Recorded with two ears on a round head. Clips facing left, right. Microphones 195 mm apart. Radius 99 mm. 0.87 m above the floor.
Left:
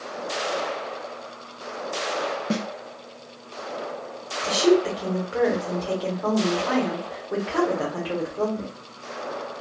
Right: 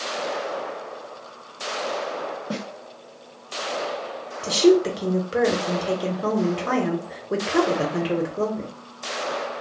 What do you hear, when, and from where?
2.5 s a snare drum: 30° left (ahead or behind), 0.6 m
4.4 s a woman speaking: 35° right (ahead or behind), 0.7 m